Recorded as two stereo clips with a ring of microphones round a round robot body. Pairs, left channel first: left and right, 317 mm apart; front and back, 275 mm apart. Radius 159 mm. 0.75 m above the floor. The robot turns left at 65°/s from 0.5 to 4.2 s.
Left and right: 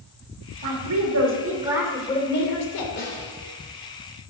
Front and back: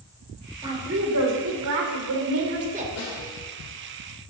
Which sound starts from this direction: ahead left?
A snare drum, at 3.0 s.